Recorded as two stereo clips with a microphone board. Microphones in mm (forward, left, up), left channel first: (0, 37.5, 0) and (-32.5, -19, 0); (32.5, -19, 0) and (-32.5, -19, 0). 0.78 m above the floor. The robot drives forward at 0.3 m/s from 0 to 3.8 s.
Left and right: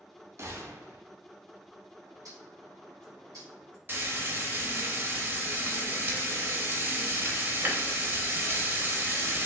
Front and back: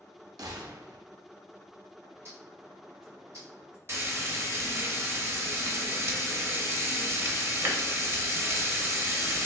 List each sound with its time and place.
0.4 s a gunshot: 165° right, 0.6 m; by 1.0 s 170° right, 0.8 m
2.0 s a bird: 135° right, 1.6 m; by 3.8 s 145° right, 2.0 m
3.9 s frying: 160° right, 0.6 m